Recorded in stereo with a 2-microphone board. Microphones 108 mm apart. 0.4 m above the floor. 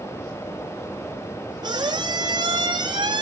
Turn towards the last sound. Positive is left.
turn(degrees=-40)  # may be behind; listen again after turning